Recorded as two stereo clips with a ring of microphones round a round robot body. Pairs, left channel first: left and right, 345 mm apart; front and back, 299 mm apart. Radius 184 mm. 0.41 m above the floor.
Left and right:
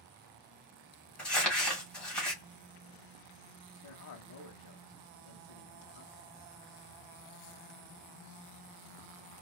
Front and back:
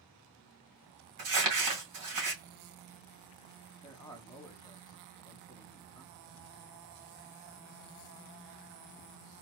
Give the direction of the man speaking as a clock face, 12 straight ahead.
10 o'clock.